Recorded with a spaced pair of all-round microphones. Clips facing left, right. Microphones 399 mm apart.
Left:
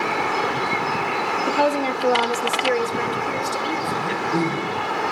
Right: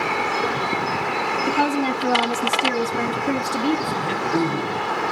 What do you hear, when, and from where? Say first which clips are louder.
1.5 s a woman speaking: even; 15° right (ahead or behind), 1.7 m; by 4.4 s 85° right, 3 m
4.0 s throat clearing: right 1 dB; 15° left (ahead or behind), 5 m